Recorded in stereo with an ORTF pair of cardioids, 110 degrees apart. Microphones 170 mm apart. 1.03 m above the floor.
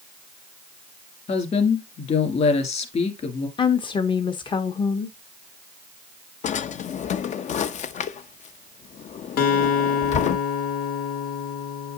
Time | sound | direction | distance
1.3 | a woman speaking | 40° left | 2 m
3.6 | a woman speaking | 30° left | 0.7 m
6.4 | a drawer | 45° left | 0.5 m
9.4 | a guitar | 65° left | 1.2 m